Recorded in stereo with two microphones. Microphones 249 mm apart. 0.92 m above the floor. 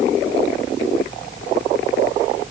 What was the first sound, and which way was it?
Only background noise.